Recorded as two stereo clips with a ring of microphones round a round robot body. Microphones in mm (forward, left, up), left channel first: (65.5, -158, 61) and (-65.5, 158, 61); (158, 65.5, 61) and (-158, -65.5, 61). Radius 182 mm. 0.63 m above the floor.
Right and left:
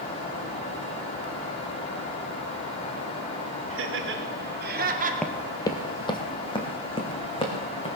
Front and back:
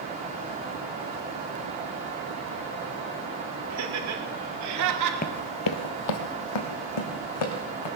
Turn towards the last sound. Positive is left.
turn(degrees=10)